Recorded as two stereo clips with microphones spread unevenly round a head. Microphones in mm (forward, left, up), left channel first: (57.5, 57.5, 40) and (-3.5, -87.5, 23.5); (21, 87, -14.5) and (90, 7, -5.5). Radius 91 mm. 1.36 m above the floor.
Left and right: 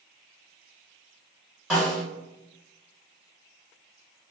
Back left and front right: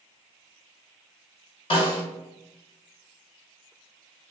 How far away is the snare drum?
About 1.5 m.